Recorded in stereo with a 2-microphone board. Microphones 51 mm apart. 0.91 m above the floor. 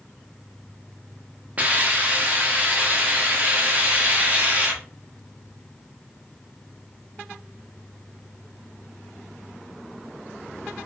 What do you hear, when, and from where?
1.6 s a hiss: 30° right (ahead or behind), 0.7 m